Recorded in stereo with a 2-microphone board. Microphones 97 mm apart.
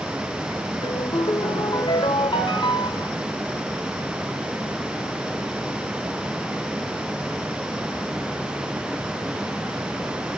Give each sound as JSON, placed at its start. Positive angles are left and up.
{"t": 0.8, "sound": "a ringtone", "side_deg": 60, "distance_m": 1.8}